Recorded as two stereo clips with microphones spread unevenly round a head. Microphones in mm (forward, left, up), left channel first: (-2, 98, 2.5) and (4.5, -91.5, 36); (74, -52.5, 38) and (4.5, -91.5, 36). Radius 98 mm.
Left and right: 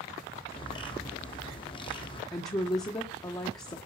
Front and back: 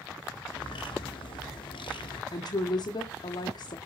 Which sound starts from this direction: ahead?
A woman speaking, at 2.3 s.